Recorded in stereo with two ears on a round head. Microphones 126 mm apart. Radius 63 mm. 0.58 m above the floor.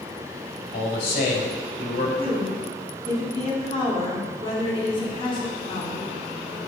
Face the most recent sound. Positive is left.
turn(degrees=40)  # may be behind; listen again after turning